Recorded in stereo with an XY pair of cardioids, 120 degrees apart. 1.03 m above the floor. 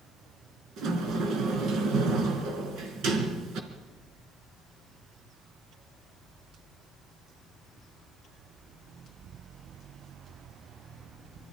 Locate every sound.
0.8 s a sliding door: 65° right, 3 m